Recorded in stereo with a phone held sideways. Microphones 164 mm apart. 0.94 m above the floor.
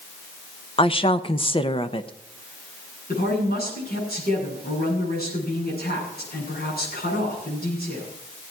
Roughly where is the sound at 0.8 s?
Left.